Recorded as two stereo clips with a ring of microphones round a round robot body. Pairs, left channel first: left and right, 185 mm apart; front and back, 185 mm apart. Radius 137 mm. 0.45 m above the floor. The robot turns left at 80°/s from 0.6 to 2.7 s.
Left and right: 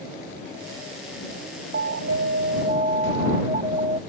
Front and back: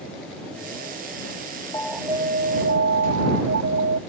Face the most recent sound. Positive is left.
turn(degrees=-155)